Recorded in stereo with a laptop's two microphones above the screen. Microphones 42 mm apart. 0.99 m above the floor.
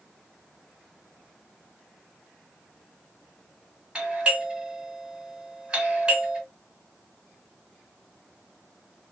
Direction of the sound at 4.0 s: 20° right (ahead or behind).